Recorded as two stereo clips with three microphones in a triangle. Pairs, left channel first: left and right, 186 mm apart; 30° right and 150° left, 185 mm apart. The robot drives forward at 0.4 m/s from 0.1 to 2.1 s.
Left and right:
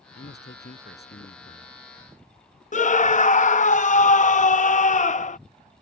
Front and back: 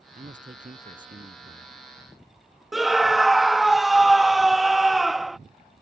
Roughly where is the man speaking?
Left.